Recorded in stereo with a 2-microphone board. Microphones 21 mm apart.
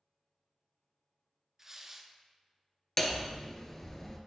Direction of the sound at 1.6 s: 25° right (ahead or behind).